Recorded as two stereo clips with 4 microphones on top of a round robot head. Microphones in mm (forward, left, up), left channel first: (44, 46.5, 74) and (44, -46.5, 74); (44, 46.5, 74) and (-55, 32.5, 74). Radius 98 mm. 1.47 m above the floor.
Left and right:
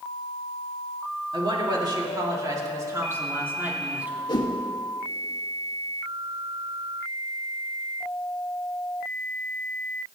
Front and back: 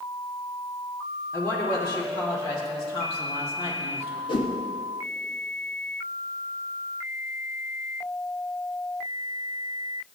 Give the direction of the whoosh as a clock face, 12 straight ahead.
10 o'clock.